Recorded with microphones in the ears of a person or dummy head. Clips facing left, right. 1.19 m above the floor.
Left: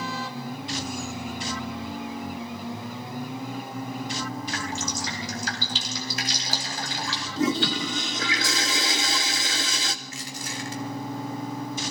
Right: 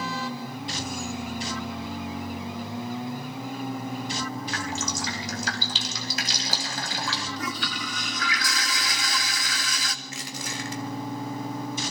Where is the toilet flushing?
25° left (ahead or behind), 0.5 m.